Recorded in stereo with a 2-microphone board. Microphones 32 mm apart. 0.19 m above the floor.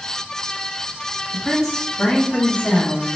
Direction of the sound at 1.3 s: Centre (ahead or behind).